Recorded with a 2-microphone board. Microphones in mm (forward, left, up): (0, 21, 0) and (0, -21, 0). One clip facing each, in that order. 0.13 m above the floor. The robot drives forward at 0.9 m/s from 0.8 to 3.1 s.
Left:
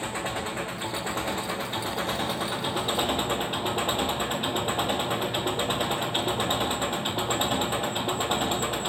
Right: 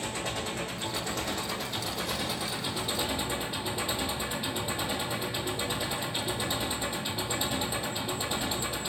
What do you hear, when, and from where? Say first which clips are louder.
0.0 s an engine running: left 3 dB; 25° left (ahead or behind), 4 m; by 8.9 s 50° left (ahead or behind), 2.5 m